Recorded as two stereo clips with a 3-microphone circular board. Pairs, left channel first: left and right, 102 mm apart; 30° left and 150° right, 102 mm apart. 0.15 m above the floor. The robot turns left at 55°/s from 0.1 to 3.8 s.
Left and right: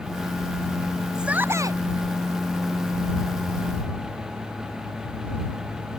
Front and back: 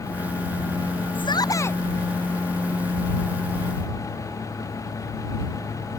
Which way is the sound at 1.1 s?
5° right.